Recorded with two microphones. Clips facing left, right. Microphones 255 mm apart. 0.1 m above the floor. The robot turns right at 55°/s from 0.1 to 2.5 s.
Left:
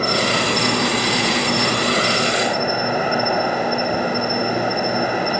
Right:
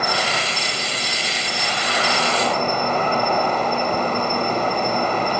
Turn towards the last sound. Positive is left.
turn(degrees=170)